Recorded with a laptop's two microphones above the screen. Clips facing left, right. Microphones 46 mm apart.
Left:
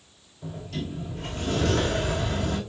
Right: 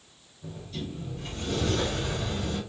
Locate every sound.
0.4 s a sliding door: 65° left (ahead or behind), 3 m